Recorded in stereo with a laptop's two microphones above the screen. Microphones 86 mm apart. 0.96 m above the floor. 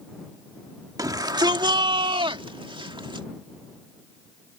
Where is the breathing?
I don't hear breathing.